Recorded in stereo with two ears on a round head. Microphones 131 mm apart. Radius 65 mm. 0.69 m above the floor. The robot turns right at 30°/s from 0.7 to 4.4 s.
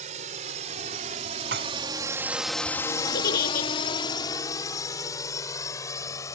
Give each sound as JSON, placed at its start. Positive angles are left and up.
{"t": 0.0, "sound": "a drone", "side_deg": -55}
{"t": 1.5, "sound": "dishes clattering", "side_deg": -85}
{"t": 3.1, "sound": "a giggle", "side_deg": 80}